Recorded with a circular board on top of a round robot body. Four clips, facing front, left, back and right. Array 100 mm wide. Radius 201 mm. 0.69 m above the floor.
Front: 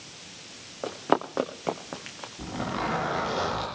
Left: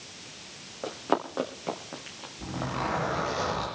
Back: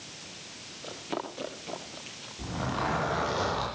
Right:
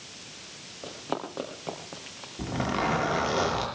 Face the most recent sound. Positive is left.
turn(degrees=-75)